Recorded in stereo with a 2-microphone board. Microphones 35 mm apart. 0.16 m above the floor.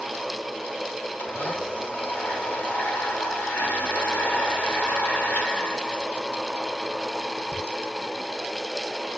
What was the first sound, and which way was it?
A blender, 85° left.